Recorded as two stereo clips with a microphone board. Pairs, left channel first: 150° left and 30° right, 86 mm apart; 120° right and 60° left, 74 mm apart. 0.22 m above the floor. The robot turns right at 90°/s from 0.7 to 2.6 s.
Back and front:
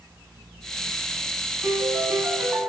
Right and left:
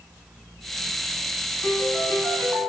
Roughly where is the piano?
Ahead right.